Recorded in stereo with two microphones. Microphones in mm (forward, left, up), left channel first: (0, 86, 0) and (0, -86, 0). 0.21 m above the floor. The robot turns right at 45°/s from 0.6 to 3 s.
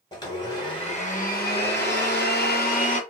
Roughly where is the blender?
Ahead left.